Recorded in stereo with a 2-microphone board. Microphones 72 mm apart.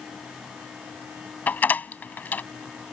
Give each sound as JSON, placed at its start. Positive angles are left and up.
{"t": 1.5, "sound": "a door slam", "side_deg": 25}